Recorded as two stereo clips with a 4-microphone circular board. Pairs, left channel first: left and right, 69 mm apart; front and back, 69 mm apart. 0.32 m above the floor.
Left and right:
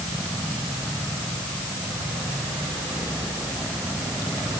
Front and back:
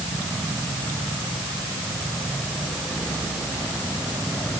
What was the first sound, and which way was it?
Only background noise.